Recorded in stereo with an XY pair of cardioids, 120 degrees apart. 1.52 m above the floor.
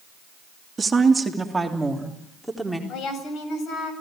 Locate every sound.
0.8 s a woman speaking: 25° right, 2.5 m; by 2.8 s 5° left, 4 m
2.9 s a woman speaking: 60° left, 7 m